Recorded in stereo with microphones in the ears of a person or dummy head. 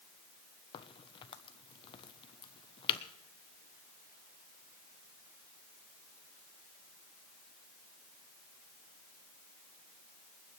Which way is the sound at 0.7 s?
35° left (ahead or behind).